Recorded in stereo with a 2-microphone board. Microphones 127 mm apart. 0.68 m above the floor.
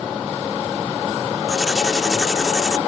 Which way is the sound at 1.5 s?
5° right (ahead or behind).